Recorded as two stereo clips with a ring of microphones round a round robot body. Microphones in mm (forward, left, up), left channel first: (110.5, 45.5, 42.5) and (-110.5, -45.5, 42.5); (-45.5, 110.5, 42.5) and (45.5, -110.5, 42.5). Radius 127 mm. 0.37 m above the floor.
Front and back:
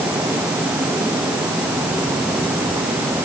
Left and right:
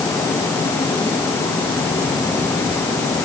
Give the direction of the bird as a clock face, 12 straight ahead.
I don't hear a bird.